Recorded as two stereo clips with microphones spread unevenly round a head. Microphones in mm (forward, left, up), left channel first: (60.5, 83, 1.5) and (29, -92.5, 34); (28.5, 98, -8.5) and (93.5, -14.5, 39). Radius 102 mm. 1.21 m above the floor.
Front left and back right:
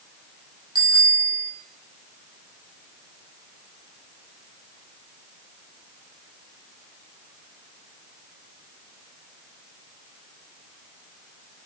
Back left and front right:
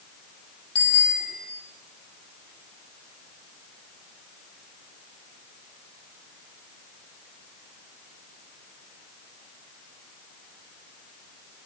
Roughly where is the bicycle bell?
Behind.